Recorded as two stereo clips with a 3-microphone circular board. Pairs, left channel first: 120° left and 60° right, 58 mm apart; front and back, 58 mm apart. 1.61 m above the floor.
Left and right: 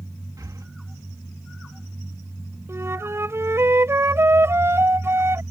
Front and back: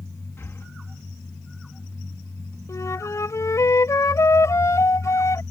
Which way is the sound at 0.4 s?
45° right.